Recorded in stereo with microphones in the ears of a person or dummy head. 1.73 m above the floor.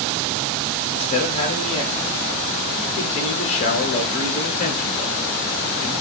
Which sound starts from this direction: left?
A man speaking, at 0.9 s.